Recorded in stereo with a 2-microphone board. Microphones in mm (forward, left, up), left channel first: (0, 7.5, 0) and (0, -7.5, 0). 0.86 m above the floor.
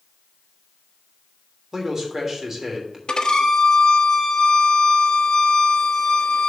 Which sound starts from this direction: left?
A violin, at 3.1 s.